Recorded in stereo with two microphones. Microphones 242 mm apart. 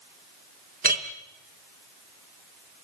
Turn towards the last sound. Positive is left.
turn(degrees=-35)  # may be behind; listen again after turning